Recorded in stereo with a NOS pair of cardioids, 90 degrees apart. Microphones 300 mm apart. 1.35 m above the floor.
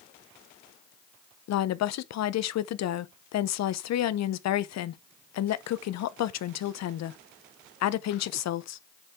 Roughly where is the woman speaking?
Ahead left.